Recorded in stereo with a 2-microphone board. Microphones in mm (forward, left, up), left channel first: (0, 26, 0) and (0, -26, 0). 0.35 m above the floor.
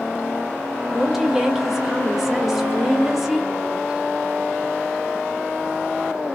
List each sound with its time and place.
0.9 s a woman speaking: 5° right (ahead or behind), 0.8 m